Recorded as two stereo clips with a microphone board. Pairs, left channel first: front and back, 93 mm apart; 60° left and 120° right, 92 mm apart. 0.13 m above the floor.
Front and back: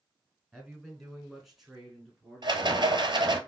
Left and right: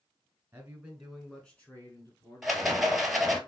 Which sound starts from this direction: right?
A man speaking, at 0.5 s.